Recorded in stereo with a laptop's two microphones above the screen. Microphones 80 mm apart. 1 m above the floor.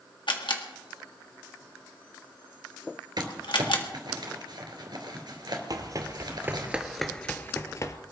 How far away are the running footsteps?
About 1.5 m.